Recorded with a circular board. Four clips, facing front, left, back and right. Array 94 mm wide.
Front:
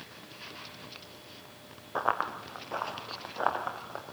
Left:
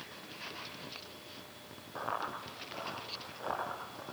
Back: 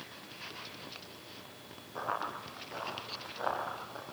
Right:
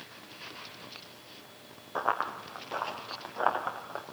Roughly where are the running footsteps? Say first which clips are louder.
Right 7 dB, front 6 dB; ahead right.